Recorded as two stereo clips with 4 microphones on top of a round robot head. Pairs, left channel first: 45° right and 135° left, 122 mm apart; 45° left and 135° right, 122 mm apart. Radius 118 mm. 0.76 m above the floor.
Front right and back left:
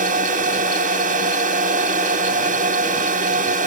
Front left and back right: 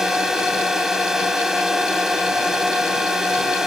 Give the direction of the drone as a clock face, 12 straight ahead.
7 o'clock.